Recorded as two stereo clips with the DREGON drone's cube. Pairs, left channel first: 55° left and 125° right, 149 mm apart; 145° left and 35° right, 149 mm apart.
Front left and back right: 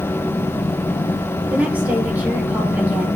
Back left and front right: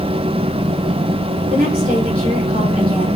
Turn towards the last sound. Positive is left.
turn(degrees=-45)